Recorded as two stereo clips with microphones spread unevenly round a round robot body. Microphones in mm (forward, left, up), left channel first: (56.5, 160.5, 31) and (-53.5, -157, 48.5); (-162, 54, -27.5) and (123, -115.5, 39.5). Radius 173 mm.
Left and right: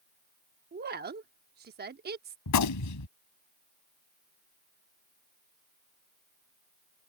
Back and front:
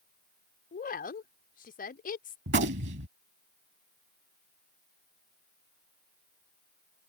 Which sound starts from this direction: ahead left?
A gunshot, at 2.5 s.